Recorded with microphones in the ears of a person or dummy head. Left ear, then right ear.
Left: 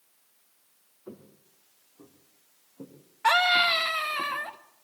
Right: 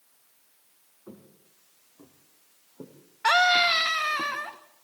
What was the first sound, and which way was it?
Footsteps, 10° left (ahead or behind).